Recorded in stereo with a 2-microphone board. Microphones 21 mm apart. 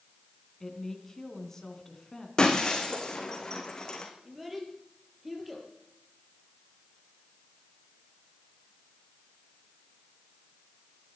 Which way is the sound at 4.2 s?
10° right (ahead or behind).